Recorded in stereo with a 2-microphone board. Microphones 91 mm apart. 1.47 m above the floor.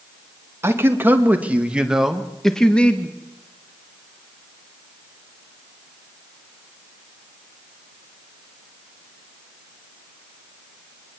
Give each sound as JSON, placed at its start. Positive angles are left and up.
{"t": 0.6, "sound": "a man speaking", "side_deg": -25, "distance_m": 2.5}